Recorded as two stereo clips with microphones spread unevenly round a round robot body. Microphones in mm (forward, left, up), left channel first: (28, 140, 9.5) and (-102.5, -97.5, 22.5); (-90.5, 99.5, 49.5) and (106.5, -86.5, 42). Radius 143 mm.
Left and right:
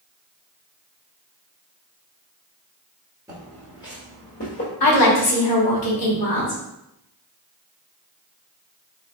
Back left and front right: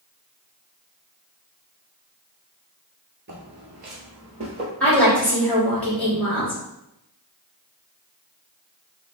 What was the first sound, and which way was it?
Footsteps, 50° right.